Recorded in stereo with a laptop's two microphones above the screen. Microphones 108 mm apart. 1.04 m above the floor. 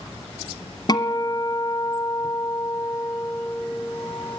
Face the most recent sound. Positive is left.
turn(degrees=40)  # may be behind; listen again after turning